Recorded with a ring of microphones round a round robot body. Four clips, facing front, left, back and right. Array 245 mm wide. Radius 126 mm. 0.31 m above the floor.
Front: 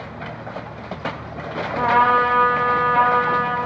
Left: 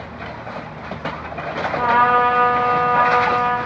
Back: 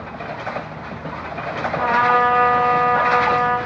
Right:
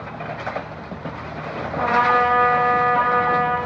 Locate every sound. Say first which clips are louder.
1.8 s a trumpet: left 2 dB, front 1 dB; 40° left, 1.9 m